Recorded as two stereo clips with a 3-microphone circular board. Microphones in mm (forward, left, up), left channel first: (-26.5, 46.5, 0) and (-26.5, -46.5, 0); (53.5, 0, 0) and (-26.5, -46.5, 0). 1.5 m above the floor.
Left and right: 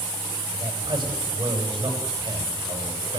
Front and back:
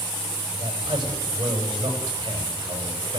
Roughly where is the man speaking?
Right.